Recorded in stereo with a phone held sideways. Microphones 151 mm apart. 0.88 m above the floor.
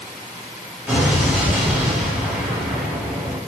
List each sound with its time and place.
0.9 s an explosion: 10° right (ahead or behind), 1.6 m